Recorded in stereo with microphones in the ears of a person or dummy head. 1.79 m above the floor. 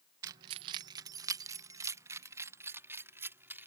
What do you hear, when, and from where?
0.2 s keys jangling: 20° right (ahead or behind); by 3.7 s 15° right (ahead or behind)